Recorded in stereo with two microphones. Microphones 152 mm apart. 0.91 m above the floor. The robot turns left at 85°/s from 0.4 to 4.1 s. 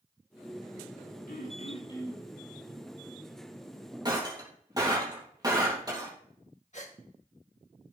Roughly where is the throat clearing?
Left.